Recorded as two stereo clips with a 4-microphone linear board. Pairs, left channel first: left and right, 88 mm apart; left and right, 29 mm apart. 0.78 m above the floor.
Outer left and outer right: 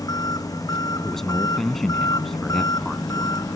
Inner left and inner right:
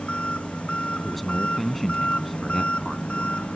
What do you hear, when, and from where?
0.0 s an engine running: 45° left (ahead or behind)
1.0 s a man speaking: 5° left (ahead or behind)